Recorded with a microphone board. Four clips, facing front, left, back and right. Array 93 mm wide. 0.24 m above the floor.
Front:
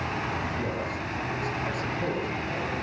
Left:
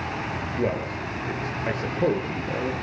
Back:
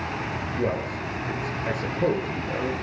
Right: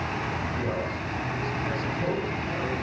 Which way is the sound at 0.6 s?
120° left.